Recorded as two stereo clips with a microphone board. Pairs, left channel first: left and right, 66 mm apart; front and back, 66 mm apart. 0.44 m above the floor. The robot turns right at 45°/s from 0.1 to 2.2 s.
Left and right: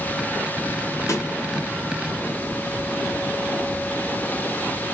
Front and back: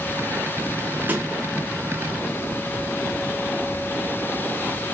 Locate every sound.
1.1 s a snare drum: 120° left, 0.6 m; by 1.3 s 130° left, 0.6 m